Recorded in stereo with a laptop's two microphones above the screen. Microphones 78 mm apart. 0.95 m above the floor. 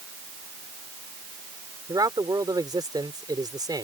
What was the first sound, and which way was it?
A man speaking, 60° right (ahead or behind).